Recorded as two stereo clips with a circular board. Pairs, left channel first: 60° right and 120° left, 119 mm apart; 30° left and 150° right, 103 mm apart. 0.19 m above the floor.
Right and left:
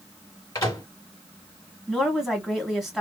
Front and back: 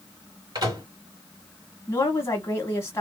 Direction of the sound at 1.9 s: 35° left.